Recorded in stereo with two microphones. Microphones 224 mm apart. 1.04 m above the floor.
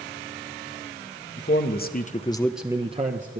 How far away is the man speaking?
About 1.3 m.